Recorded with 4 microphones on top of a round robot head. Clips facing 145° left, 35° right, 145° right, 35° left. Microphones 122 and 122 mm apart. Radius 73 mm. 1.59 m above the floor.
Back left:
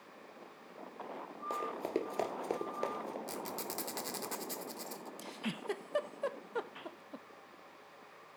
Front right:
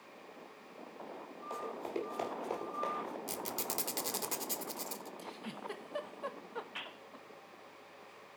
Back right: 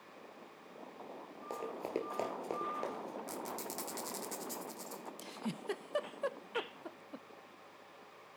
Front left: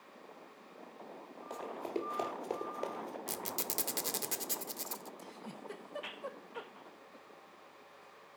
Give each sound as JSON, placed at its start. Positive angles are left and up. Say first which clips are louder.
{"t": 1.5, "sound": "running footsteps", "louder": "back left 3 dB, even", "azimuth_deg": 160, "distance_m": 2.0}
{"t": 3.3, "sound": "a squeak", "louder": "front right 1 dB, even", "azimuth_deg": 40, "distance_m": 0.5}
{"t": 5.2, "sound": "a giggle", "louder": "back left 3 dB, back right 5 dB", "azimuth_deg": -170, "distance_m": 0.7}